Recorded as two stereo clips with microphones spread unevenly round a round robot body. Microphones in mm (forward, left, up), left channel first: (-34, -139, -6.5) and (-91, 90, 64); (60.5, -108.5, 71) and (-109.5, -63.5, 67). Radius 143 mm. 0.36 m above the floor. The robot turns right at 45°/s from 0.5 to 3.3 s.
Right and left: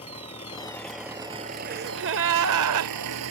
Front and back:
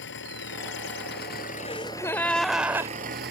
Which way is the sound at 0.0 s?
5° right.